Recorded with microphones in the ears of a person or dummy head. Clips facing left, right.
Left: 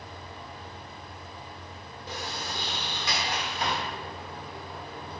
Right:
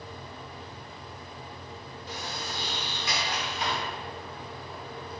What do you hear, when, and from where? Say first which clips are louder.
0.0 s a fan: right 1 dB; 60° right (ahead or behind), 1.8 m
2.1 s a sliding door: left 2 dB; 35° left (ahead or behind), 0.6 m